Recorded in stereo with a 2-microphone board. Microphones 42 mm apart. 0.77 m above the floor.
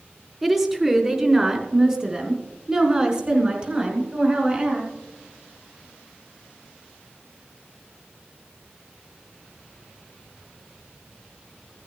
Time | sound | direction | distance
0.4 | a woman speaking | 5° right (ahead or behind) | 2 m